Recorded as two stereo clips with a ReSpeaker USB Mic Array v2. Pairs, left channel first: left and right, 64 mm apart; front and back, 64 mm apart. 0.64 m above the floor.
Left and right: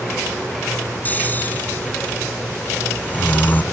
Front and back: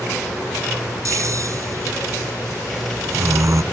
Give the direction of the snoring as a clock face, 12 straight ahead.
7 o'clock.